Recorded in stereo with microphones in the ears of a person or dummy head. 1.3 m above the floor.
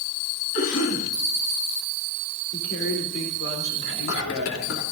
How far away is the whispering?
About 3.5 m.